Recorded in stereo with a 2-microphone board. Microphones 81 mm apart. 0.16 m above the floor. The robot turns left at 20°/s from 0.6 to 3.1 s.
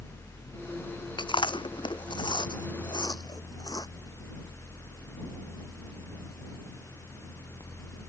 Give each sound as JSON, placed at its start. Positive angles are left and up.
{"t": 1.2, "sound": "chewing", "side_deg": 80}